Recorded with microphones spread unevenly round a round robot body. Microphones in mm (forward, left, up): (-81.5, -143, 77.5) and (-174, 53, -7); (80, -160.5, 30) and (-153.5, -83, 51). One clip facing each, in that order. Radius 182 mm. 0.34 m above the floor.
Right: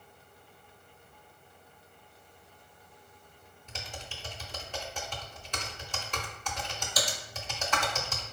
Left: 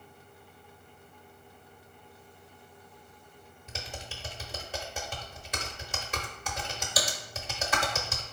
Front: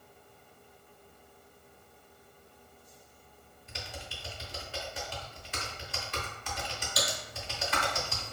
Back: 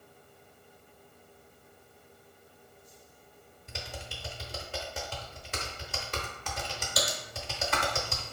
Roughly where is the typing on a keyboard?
Behind.